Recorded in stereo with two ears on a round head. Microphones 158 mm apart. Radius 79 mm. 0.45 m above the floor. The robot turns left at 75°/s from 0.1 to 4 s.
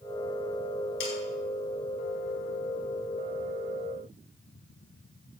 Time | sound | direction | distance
1.0 | sawing | 70° left (ahead or behind) | 4 m